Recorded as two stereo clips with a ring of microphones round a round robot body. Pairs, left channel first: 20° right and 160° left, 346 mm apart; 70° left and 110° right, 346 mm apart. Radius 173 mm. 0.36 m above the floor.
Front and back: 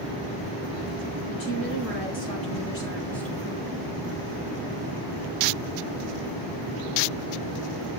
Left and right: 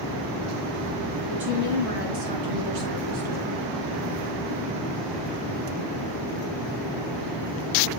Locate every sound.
1.3 s a woman speaking: 75° right, 4.5 m; by 3.6 s 115° right, 4.5 m